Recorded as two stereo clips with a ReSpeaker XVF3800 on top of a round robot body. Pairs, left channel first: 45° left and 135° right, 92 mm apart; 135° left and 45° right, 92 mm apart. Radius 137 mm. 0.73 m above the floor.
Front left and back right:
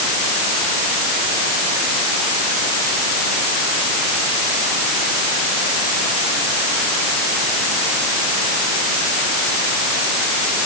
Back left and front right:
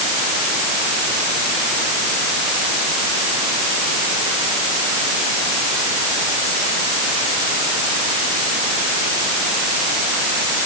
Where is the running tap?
I don't hear a running tap.